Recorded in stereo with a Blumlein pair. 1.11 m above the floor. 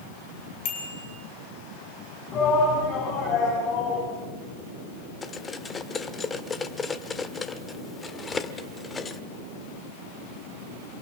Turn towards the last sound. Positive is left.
turn(degrees=15)